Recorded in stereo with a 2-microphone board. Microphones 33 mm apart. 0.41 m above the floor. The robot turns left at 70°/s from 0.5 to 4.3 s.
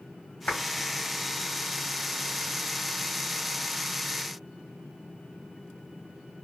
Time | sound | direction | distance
0.5 | a clap | 65° left (ahead or behind) | 2.5 m